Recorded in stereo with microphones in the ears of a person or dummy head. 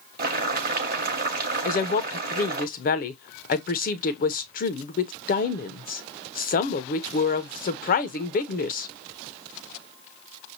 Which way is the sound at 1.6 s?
45° left (ahead or behind).